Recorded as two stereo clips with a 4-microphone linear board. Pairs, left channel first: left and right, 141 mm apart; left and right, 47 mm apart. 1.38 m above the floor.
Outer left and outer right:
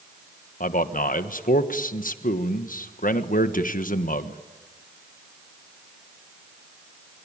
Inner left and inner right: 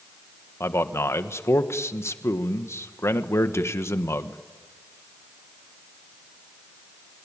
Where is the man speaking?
70° left (ahead or behind), 1.3 m.